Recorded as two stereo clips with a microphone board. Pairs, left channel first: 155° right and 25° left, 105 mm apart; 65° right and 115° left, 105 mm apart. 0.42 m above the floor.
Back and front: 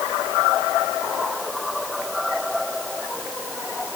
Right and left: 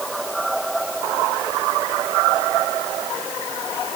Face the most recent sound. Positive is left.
No sound to turn to.